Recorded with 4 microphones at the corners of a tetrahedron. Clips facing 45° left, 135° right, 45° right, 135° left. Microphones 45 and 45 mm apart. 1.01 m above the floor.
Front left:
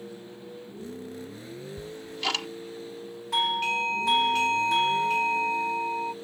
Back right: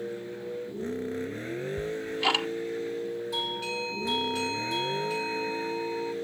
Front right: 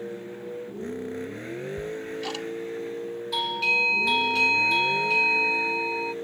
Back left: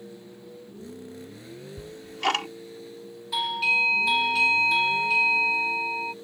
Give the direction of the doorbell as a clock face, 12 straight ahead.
10 o'clock.